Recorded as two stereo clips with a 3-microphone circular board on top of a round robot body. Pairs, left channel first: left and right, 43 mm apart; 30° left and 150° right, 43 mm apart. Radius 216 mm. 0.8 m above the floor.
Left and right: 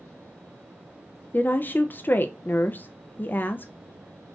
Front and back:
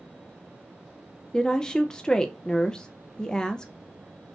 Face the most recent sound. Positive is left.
turn(degrees=100)